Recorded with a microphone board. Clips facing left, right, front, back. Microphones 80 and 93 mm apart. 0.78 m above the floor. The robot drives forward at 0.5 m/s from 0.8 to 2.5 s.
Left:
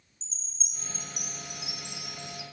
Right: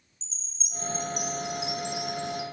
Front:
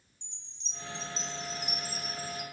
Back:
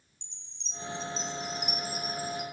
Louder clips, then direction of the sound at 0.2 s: Right 1 dB, even; 45° left.